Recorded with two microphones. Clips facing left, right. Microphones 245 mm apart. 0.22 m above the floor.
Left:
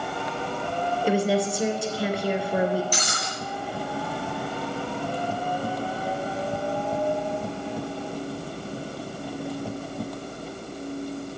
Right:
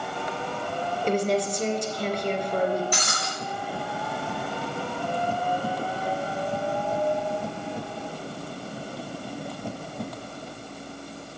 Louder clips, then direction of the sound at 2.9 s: Even; 60° right (ahead or behind).